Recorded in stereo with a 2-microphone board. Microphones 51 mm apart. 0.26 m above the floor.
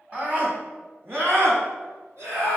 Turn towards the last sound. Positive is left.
turn(degrees=-60)  # may be behind; listen again after turning